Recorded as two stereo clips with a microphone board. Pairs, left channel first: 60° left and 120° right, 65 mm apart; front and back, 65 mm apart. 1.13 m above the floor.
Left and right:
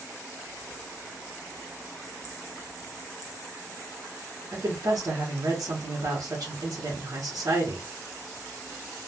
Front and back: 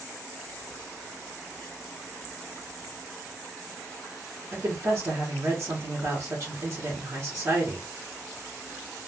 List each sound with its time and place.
4.5 s a woman speaking: 145° right, 1.0 m